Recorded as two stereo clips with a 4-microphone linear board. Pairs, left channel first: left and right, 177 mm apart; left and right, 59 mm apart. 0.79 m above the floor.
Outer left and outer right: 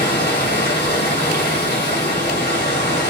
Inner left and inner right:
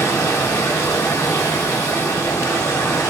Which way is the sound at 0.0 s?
65° left (ahead or behind).